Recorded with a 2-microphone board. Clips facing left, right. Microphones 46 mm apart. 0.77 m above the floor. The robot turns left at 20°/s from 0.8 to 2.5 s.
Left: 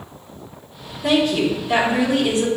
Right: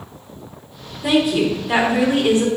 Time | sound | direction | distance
1.0 | a woman speaking | 5° right (ahead or behind) | 2 m